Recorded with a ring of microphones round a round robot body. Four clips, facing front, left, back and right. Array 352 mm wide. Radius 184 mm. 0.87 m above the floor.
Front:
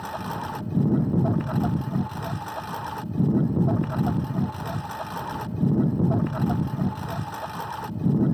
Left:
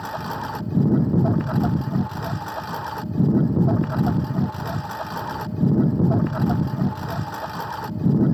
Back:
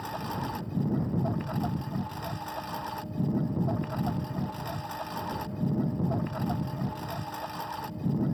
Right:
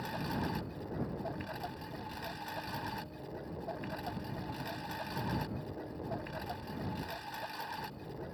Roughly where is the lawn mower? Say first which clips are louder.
Left 9 dB, front 3 dB; ahead left.